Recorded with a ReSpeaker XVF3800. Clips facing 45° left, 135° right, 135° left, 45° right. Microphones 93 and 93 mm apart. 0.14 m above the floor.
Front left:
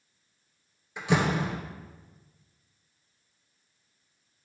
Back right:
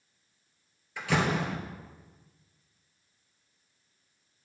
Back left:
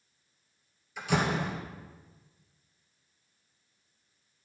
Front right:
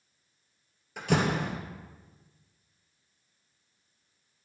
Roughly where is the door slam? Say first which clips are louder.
Front left 2 dB, front right 2 dB; ahead.